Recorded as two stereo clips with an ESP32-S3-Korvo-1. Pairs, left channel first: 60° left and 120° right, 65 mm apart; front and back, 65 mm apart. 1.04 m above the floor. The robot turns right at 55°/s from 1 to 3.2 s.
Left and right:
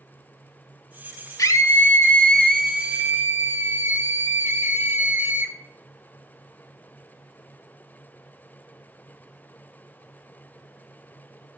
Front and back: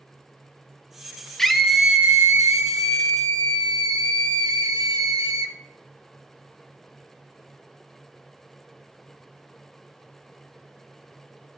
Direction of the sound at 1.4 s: 85° left.